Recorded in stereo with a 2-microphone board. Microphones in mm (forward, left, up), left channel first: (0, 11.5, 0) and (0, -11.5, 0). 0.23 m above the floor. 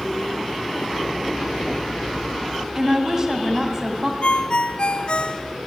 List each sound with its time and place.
2.8 s a woman speaking: 25° right (ahead or behind), 2.0 m
4.2 s a ringtone: 55° left (ahead or behind), 1.1 m